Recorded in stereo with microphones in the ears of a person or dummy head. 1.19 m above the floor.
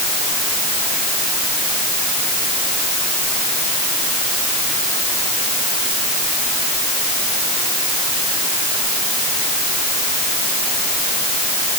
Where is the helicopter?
No helicopter in this recording.